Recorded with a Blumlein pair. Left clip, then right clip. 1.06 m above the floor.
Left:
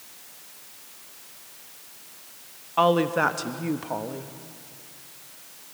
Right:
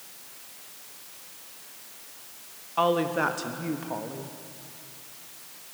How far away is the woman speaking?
About 1.2 m.